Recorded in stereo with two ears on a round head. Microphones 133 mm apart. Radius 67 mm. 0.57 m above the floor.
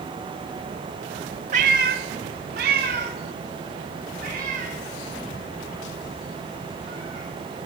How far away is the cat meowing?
About 0.7 m.